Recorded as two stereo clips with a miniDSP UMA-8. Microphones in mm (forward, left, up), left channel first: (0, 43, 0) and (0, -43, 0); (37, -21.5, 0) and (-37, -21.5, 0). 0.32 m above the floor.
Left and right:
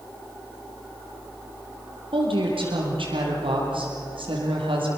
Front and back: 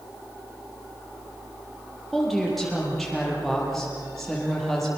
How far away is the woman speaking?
About 8.5 m.